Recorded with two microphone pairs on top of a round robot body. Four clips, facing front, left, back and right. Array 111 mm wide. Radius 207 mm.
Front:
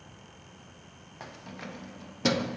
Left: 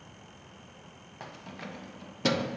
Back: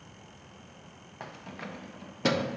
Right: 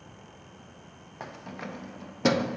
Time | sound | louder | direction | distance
1.2 | keys jangling | right 4 dB, back 1 dB | 115° right | 0.6 m